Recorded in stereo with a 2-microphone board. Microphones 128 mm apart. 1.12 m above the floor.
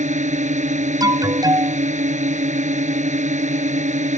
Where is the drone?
70° right (ahead or behind).